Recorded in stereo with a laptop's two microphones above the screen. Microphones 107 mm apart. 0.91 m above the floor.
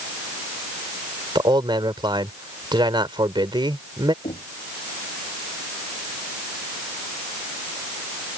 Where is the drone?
I don't hear a drone.